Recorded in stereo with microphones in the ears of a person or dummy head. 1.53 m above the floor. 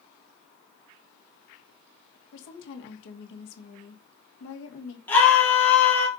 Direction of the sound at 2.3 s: 75° left (ahead or behind).